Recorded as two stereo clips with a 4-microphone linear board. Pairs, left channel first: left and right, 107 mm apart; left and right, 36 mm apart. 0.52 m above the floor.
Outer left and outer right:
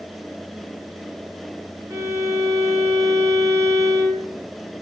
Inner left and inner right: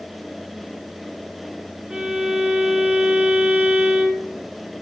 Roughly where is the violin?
Right.